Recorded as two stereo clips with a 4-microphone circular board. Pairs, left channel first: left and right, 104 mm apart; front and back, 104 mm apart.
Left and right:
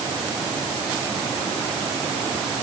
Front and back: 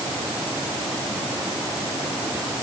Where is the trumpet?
No trumpet in this recording.